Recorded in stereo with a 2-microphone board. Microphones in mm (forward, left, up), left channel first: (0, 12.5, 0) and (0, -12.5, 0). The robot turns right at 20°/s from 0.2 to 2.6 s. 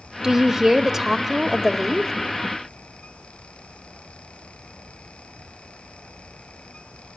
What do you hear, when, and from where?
0.2 s a woman speaking: 20° right (ahead or behind), 1.1 m; by 2.1 s 5° right (ahead or behind), 1.1 m